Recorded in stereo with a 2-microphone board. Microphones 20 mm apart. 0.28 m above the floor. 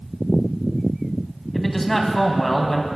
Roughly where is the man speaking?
Centre.